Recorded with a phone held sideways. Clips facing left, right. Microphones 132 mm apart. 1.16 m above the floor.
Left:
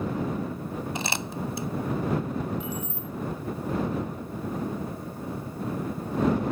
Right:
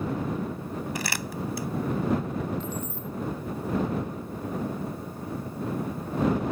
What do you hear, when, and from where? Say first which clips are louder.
0.9 s crumpling: left 1 dB; 25° left (ahead or behind)
2.6 s keys jangling: even; 10° left (ahead or behind)